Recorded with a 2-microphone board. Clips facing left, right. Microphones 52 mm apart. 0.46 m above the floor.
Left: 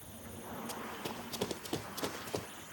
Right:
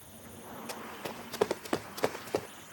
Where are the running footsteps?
85° right.